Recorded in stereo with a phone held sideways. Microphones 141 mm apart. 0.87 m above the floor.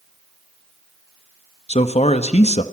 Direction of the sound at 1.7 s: 55° left (ahead or behind).